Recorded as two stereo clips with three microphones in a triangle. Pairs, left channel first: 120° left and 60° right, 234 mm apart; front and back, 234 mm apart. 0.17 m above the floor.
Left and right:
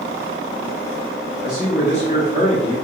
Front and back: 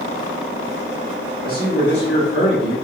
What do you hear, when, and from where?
1.4 s a man speaking: 30° left, 1.5 m; by 2.8 s straight ahead, 2.0 m